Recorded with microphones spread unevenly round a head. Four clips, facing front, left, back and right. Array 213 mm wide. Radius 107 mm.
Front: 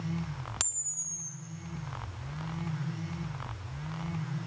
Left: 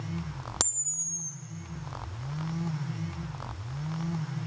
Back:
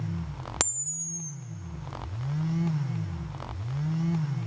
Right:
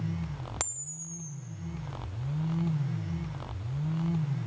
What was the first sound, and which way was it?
A camera shutter, 145° left.